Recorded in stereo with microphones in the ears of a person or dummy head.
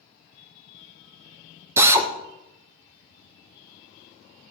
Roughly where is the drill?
Centre.